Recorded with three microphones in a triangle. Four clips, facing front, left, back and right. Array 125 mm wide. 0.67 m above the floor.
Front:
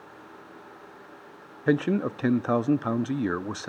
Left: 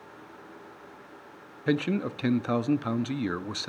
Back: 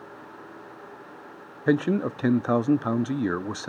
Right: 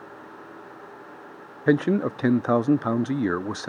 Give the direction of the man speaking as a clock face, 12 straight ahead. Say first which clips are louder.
Right 6 dB, back 1 dB; 3 o'clock.